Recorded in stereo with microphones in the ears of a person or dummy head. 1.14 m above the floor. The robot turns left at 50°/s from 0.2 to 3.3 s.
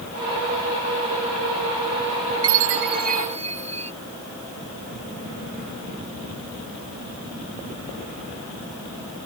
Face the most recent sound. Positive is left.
turn(degrees=-145)